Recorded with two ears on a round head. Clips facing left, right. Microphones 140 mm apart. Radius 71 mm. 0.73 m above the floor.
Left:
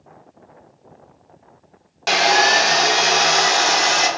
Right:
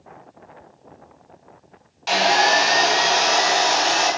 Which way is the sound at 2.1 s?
60° left (ahead or behind).